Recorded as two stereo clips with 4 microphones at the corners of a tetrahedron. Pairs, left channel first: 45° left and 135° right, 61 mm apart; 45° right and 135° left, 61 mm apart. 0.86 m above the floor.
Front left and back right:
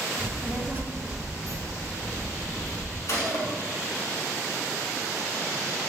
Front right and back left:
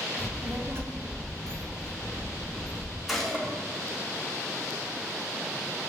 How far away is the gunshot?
About 1.3 m.